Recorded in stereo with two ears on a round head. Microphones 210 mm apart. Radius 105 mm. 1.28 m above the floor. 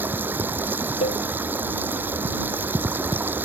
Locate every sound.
0.0 s running water: 10° right (ahead or behind)
1.0 s a cowbell: 25° left (ahead or behind)